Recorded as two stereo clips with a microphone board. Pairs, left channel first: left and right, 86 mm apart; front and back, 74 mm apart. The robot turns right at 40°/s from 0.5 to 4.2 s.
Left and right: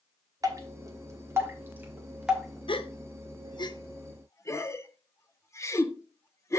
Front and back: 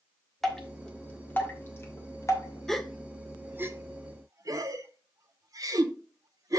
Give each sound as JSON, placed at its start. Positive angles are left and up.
{"t": 0.4, "sound": "dripping", "azimuth_deg": -85, "distance_m": 1.2}
{"t": 2.7, "sound": "a gasp", "azimuth_deg": 85, "distance_m": 0.6}